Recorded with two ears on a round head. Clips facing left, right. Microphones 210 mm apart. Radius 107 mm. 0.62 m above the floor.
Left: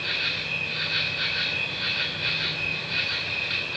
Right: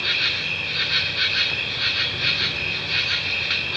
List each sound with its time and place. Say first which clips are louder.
0.0 s an insect: right 2 dB; 65° right (ahead or behind), 3 m